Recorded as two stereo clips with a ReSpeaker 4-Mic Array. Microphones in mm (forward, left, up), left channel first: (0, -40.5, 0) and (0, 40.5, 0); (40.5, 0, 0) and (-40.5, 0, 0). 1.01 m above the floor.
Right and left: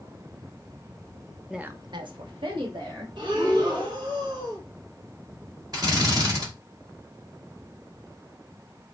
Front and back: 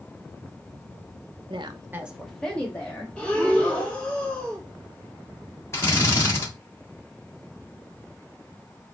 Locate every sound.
1.5 s a woman speaking: 175° left, 0.7 m; by 3.1 s 65° left, 2 m
3.2 s breathing: 75° left, 1.3 m
5.7 s a drill: 55° left, 1.4 m